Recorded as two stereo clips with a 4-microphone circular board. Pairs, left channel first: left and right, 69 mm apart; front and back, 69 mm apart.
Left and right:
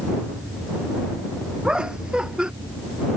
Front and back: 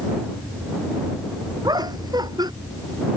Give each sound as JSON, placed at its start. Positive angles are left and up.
{"t": 1.6, "sound": "laughter", "azimuth_deg": -165}